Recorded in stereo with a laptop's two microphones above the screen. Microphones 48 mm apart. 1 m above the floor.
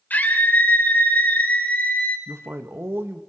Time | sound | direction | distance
0.1 | a scream | 40° left (ahead or behind) | 4 m
2.3 | a man speaking | 60° right (ahead or behind) | 1.4 m